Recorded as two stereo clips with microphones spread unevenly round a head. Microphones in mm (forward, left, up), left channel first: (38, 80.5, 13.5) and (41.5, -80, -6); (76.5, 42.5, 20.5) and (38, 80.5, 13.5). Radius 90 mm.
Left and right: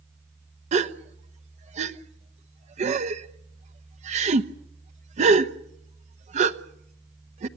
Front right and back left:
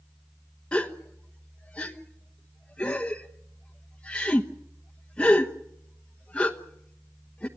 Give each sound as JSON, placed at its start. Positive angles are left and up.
{"t": 0.7, "sound": "a gasp", "azimuth_deg": -95, "distance_m": 1.0}